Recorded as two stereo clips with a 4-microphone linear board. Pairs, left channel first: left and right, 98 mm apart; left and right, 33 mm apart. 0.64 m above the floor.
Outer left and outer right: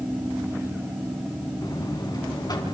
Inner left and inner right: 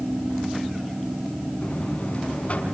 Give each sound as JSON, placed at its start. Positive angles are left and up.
{"t": 1.6, "sound": "a buzzer", "side_deg": 45, "distance_m": 4.0}